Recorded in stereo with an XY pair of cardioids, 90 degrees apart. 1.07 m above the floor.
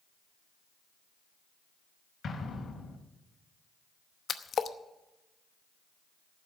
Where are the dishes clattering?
No dishes clattering in this recording.